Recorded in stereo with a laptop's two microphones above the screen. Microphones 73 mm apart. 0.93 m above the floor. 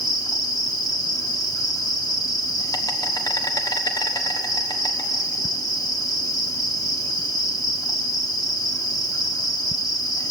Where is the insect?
60° left (ahead or behind), 1.2 m.